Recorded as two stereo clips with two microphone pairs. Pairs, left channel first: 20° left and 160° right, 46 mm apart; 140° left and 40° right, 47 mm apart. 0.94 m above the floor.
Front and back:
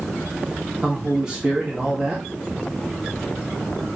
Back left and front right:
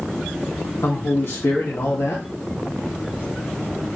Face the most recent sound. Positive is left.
turn(degrees=120)